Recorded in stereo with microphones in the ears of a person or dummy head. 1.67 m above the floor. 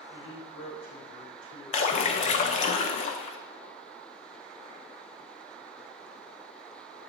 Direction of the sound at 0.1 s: 85° left.